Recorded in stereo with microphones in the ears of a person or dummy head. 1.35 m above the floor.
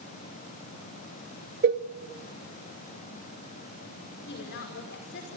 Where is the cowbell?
50° right (ahead or behind), 0.7 m.